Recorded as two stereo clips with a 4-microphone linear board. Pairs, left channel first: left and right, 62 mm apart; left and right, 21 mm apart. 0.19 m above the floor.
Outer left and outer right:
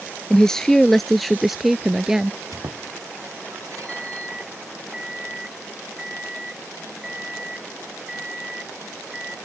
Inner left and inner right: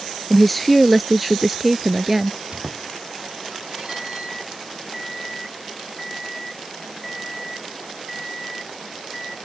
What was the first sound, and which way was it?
A woman speaking, 10° left (ahead or behind).